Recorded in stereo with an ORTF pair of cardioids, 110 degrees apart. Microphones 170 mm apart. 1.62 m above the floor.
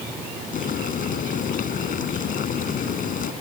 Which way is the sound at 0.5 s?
55° left.